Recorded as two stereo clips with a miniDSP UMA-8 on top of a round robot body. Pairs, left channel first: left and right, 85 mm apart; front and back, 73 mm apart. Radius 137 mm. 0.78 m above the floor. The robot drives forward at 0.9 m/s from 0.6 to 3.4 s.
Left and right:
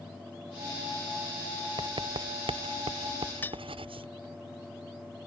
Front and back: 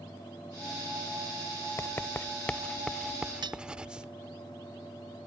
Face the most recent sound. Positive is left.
turn(degrees=160)